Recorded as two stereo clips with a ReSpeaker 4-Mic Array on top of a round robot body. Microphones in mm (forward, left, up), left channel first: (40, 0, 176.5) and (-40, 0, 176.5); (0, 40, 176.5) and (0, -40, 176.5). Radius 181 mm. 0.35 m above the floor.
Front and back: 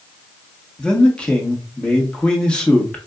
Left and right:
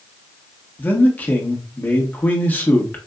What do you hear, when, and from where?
0.8 s a man speaking: 60° left, 1.5 m